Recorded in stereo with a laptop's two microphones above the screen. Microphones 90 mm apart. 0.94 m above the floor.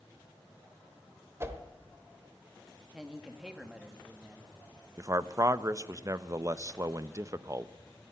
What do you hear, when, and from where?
1.4 s a whoosh: 30° right (ahead or behind), 1.0 m
2.9 s a man speaking: 10° right (ahead or behind), 1.8 m
5.0 s a man speaking: 35° right (ahead or behind), 0.6 m